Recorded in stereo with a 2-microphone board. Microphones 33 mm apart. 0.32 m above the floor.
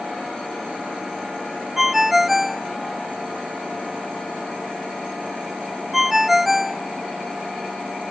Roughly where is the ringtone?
Centre.